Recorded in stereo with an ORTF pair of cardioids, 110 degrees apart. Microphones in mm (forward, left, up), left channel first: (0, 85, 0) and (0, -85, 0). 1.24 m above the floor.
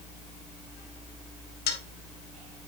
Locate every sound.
1.7 s a dropped coin: 70° left, 1.9 m